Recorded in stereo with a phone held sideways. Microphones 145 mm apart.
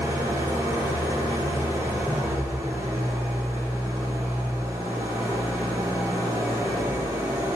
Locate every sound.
0.0 s an engine running: 20° right (ahead or behind), 1.5 m